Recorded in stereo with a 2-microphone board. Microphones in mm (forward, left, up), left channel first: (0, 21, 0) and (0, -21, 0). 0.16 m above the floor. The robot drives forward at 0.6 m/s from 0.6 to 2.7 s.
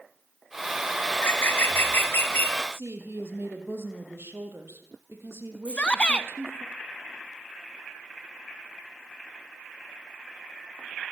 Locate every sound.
1.1 s a bird: 55° left (ahead or behind), 1.5 m; by 2.6 s 50° left (ahead or behind), 1.6 m
2.7 s a woman speaking: 75° right (ahead or behind), 5 m
5.7 s a shout: 25° left (ahead or behind), 1.2 m